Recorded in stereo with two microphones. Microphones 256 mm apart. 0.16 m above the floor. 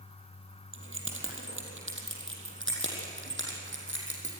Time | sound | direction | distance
0.7 | keys jangling | 55° right (ahead or behind) | 4 m